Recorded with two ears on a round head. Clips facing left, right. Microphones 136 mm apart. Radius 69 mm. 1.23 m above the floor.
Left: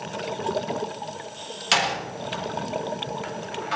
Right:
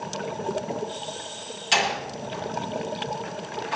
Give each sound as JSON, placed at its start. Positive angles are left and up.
{"t": 1.7, "sound": "a door slam", "side_deg": 75, "distance_m": 6.0}